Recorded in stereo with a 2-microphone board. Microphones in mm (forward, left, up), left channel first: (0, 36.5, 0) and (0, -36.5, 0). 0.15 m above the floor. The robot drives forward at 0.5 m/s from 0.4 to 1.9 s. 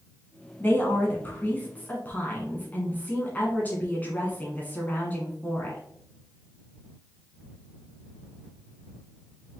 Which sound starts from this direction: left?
A woman speaking, at 0.6 s.